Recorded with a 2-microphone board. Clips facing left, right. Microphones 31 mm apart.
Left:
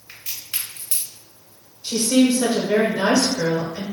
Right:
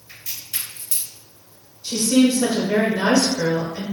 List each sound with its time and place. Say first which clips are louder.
0.1 s a crack: left 1 dB; 45° left (ahead or behind), 1.9 m
1.8 s a woman speaking: even; 20° left (ahead or behind), 1.0 m